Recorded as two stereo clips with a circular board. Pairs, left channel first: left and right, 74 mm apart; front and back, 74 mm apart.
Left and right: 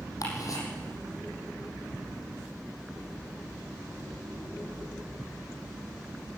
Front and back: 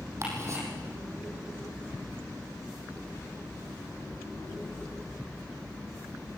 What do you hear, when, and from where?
0.2 s ticking: 130° left, 7 m